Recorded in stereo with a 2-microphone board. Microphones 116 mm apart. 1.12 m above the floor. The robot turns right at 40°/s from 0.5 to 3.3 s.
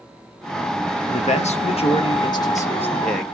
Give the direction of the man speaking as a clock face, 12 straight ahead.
9 o'clock.